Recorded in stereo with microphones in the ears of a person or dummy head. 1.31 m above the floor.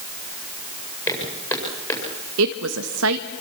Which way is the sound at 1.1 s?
20° left (ahead or behind).